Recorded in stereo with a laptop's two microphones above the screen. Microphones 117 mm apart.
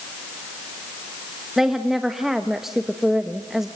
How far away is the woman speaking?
About 1.1 m.